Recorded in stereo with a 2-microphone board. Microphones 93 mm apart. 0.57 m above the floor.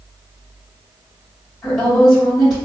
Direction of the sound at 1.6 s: 25° left (ahead or behind).